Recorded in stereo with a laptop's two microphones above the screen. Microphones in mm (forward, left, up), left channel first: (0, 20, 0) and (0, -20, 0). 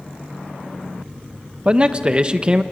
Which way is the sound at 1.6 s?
25° right (ahead or behind).